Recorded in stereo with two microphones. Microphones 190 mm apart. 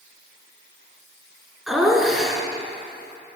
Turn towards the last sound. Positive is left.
turn(degrees=0)  # may be behind; listen again after turning